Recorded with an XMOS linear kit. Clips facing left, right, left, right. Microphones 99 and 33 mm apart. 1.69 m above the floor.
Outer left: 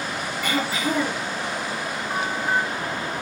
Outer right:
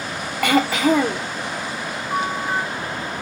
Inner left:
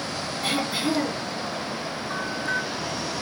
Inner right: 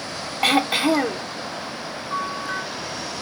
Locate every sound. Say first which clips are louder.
0.4 s throat clearing: outer right 8 dB, inner right 7 dB; 75° right (ahead or behind), 0.5 m
2.1 s a bell: outer right 2 dB, inner right 2 dB; 55° left (ahead or behind), 1.8 m